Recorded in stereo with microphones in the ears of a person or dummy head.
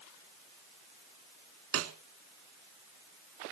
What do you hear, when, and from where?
1.7 s a snare drum: 80° right, 3 m